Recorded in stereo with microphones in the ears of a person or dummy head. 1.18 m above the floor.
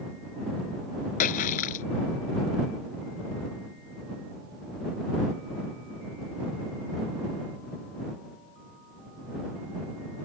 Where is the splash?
50° left (ahead or behind).